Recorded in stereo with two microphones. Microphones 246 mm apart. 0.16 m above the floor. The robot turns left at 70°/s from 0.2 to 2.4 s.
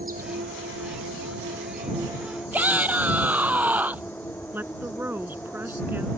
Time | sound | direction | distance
0.0 | an insect | 35° right | ?
2.5 | a shout | 5° right (ahead or behind) | ?
4.5 | a woman speaking | 10° right (ahead or behind) | ?